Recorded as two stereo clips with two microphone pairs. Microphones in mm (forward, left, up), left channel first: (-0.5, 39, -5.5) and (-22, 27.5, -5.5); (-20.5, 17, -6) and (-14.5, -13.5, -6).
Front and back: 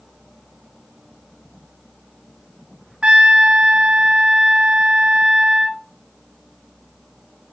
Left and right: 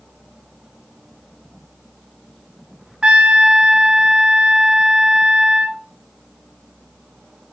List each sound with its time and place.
3.0 s a trumpet: 130° right, 0.6 m